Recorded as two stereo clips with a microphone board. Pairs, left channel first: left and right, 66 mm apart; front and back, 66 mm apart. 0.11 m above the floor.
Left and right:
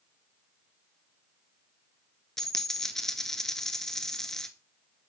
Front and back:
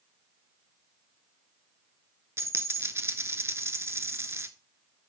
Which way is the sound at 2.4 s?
170° left.